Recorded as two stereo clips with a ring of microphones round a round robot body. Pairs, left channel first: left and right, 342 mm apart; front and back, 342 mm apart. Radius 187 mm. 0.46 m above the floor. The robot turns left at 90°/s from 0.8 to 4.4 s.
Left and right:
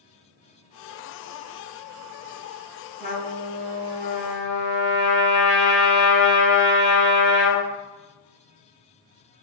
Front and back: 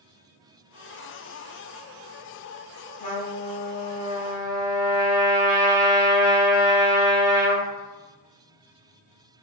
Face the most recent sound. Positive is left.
turn(degrees=-90)